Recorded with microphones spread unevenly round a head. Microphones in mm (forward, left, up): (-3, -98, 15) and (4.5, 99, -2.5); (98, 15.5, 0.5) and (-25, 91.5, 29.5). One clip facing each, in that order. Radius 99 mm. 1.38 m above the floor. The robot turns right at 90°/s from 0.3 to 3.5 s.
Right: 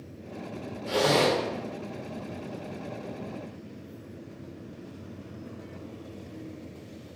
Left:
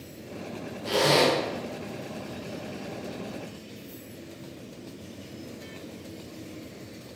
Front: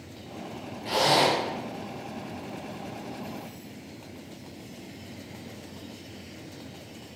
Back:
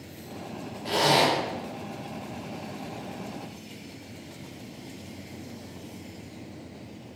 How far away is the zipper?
About 1.1 m.